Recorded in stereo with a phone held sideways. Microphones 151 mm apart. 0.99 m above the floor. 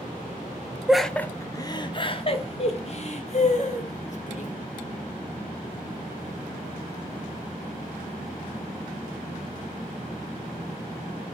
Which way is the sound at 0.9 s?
5° right (ahead or behind).